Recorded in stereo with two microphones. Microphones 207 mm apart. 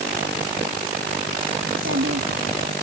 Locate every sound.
1.6 s a child speaking: 80° right; by 2.7 s 70° right (ahead or behind)